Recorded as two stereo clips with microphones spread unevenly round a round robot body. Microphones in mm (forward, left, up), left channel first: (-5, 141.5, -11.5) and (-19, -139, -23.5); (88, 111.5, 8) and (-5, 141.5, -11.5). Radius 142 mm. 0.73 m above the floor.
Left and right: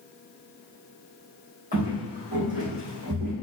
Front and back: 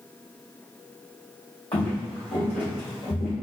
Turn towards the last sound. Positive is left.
turn(degrees=-50)